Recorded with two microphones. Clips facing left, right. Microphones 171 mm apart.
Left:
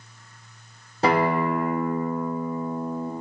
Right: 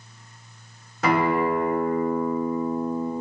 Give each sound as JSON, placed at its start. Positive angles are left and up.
{"t": 1.0, "sound": "a guitar", "side_deg": 30, "distance_m": 2.0}